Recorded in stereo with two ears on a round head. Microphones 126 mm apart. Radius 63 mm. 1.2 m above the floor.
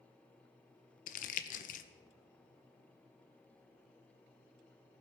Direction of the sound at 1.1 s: 60° left (ahead or behind).